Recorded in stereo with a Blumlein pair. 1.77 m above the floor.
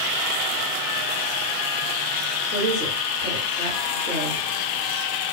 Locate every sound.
2.5 s a woman speaking: 65° left, 2 m